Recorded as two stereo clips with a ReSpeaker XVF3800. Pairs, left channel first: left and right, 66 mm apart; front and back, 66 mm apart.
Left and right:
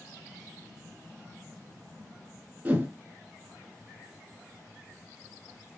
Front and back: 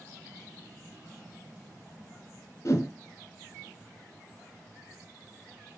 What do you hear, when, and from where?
2.6 s a whoosh: 30° right, 0.6 m